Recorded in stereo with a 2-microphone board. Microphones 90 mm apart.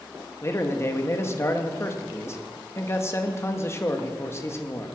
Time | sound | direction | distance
0.4 | a man speaking | 30° left (ahead or behind) | 1.6 m